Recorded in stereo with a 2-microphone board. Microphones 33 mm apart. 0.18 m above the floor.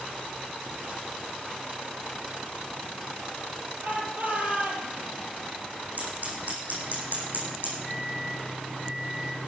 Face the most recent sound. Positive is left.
turn(degrees=-60)  # may be behind; listen again after turning